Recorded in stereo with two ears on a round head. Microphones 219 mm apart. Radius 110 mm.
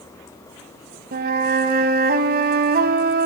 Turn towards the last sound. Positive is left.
turn(degrees=-40)  # may be behind; listen again after turning